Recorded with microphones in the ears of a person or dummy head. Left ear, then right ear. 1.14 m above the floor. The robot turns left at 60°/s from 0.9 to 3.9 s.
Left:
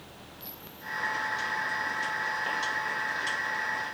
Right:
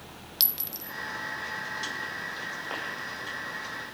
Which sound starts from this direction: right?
A clink, at 0.4 s.